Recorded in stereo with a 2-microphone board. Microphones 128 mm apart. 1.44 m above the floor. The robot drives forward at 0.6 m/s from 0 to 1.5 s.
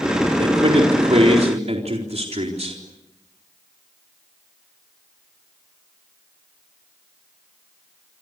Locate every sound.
0.4 s a man speaking: 50° right (ahead or behind), 4.5 m; by 2.8 s 55° right (ahead or behind), 4 m